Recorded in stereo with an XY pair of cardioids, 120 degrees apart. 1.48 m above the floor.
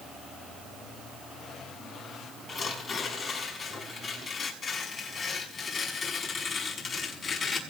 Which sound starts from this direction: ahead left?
Tearing paper, at 2.5 s.